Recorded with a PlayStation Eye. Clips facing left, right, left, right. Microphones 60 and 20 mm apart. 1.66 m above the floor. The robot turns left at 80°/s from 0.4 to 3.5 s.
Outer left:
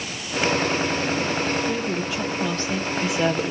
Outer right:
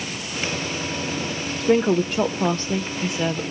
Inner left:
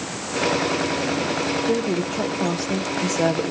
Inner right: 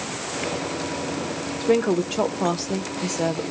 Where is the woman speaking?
65° right, 0.9 m; by 3.5 s 140° left, 0.9 m.